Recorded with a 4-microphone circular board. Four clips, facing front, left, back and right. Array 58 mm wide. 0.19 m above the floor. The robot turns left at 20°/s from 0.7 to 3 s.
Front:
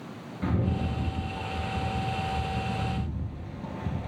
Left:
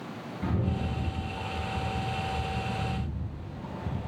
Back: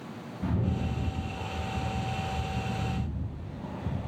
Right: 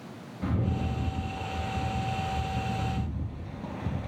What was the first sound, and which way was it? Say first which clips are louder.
A rattle: right 1 dB, front 2 dB; straight ahead.